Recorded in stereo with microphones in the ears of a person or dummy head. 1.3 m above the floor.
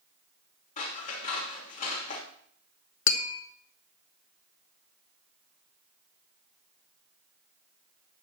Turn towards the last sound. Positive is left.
turn(degrees=65)  # may be behind; listen again after turning